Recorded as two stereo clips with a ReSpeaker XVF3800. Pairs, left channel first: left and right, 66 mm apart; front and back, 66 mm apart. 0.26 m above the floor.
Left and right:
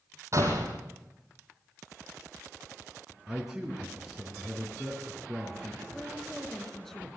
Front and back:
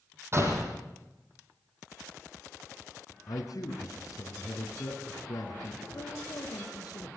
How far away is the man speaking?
About 3.5 m.